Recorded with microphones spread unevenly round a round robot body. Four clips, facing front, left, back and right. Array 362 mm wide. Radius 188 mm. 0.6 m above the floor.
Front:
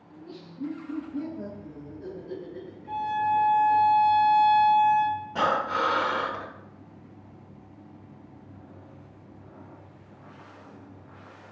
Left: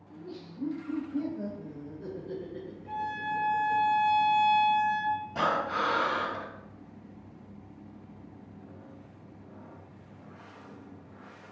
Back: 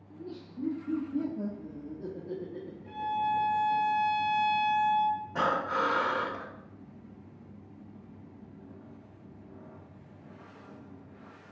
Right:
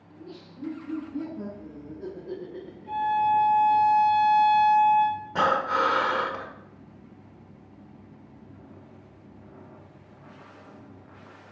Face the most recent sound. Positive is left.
turn(degrees=-75)